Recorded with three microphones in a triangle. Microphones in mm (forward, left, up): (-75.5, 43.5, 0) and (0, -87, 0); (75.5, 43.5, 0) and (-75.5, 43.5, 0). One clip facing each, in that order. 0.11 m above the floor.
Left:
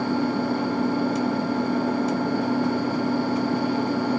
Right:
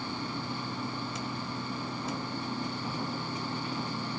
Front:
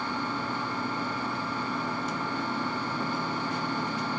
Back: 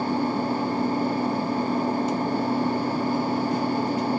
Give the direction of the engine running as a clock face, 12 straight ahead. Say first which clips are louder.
Left 14 dB, back 8 dB; 8 o'clock.